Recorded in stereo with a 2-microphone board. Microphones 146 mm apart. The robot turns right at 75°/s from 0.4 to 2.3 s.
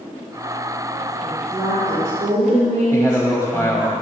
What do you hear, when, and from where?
1.2 s a woman speaking: 160° left, 3 m; by 3.9 s 120° right, 3 m
2.9 s a man speaking: 20° left (ahead or behind), 1.2 m